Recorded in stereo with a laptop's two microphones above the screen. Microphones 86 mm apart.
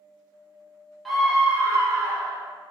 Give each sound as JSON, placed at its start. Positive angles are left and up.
{"t": 1.1, "sound": "a scream", "side_deg": 0, "distance_m": 0.8}